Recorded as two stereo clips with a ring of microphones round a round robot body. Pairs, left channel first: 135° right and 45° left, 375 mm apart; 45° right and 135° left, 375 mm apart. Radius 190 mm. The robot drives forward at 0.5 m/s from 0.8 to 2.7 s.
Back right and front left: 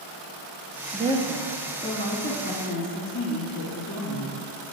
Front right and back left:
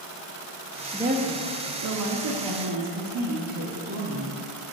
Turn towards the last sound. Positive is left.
turn(degrees=165)